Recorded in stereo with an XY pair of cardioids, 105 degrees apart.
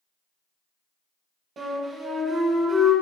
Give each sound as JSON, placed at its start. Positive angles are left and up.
{"t": 1.6, "sound": "a flute", "azimuth_deg": -50, "distance_m": 1.1}